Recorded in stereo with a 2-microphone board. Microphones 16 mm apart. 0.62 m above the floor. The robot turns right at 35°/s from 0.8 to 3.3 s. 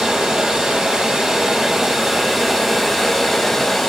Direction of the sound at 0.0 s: 70° right.